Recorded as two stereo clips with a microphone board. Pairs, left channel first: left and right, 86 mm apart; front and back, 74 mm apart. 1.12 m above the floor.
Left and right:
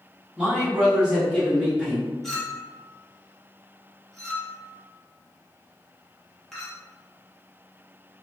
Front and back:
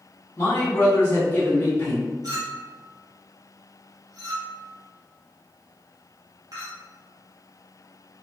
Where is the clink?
175° left, 0.7 m.